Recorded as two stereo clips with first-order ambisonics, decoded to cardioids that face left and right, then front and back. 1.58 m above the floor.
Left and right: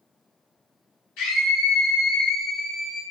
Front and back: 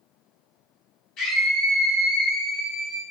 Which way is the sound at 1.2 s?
55° left.